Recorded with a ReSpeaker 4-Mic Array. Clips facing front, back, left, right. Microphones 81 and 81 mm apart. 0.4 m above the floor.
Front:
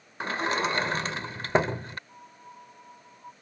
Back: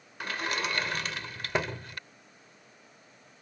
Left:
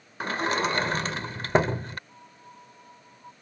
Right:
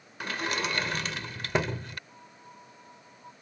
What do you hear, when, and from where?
0.2 s a sliding door: 50° left
2.1 s a piano: 10° left